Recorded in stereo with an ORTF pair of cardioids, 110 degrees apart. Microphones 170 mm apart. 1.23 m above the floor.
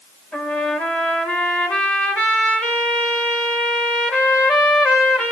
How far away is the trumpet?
About 5 m.